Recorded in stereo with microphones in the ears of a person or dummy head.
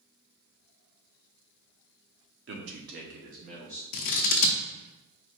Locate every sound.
2.5 s a man speaking: 65° right (ahead or behind), 1.0 m; by 3.8 s 35° right (ahead or behind), 1.7 m
3.9 s scissors: 55° left (ahead or behind), 0.7 m